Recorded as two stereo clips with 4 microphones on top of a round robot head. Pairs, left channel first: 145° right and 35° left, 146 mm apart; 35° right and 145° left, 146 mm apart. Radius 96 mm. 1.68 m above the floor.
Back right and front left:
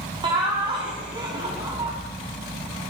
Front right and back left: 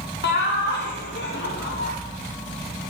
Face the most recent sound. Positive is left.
turn(degrees=-30)